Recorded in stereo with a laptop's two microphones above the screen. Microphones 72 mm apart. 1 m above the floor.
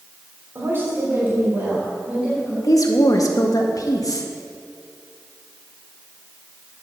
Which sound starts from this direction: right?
A woman speaking, at 0.6 s.